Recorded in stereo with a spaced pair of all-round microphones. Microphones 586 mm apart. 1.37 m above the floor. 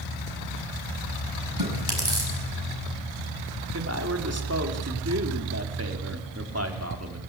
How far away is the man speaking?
About 3.5 m.